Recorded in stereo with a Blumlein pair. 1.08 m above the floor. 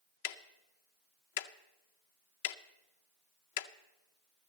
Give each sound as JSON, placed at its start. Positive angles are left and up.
{"t": 0.2, "sound": "ticking", "azimuth_deg": 50, "distance_m": 0.5}